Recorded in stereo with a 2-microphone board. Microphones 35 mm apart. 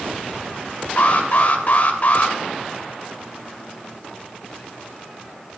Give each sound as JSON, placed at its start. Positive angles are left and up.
{"t": 1.0, "sound": "an alarm", "side_deg": 45, "distance_m": 1.2}